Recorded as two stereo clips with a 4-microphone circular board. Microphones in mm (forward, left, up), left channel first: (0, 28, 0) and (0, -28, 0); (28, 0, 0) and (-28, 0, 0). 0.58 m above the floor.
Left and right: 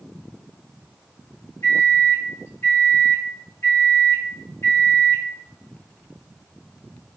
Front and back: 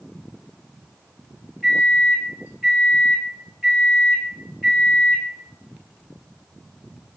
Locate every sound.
1.6 s a microwave: 110° left, 1.8 m